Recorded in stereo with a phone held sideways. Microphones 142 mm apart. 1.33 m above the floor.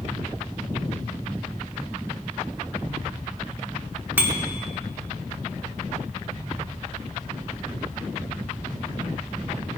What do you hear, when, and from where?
4.2 s a bicycle bell: 15° right (ahead or behind), 2.5 m